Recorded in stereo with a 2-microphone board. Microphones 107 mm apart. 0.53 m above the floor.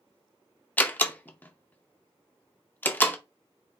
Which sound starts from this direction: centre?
A door slam, at 0.8 s.